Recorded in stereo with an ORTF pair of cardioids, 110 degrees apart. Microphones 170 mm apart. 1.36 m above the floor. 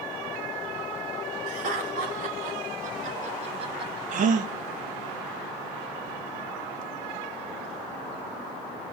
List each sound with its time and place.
1.5 s laughter: 60° right, 3.5 m; by 4.0 s 25° right, 1.2 m
4.1 s a gasp: 55° right, 1.1 m